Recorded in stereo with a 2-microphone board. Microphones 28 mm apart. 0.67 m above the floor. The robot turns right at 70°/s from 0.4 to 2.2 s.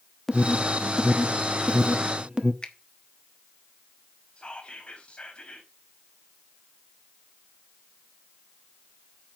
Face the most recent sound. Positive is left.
turn(degrees=45)  # may be behind; listen again after turning